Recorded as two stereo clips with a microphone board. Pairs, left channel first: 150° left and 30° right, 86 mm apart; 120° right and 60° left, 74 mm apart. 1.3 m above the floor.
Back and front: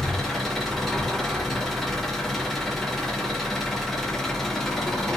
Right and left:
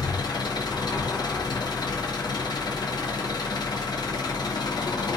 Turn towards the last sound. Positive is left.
turn(degrees=-125)